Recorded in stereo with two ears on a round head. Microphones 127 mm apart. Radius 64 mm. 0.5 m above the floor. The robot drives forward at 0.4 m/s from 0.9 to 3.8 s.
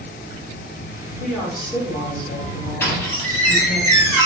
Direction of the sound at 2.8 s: 15° left (ahead or behind).